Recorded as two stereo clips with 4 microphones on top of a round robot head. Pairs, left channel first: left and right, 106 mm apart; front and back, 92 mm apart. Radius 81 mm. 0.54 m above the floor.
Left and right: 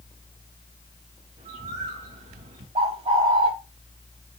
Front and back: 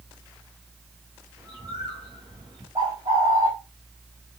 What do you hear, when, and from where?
1.4 s a bird: 85° right, 5 m
2.8 s a bird: 120° right, 4 m